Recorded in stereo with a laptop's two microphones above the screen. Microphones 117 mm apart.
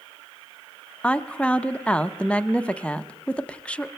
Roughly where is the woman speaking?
Centre.